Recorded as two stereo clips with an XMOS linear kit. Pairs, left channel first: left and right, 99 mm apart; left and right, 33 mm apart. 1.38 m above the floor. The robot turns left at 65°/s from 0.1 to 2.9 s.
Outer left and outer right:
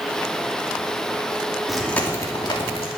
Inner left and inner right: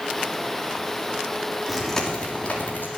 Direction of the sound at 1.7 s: 5° right (ahead or behind).